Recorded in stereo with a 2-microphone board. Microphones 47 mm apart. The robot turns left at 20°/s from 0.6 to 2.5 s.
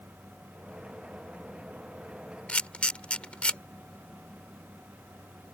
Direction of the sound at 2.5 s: 30° left (ahead or behind).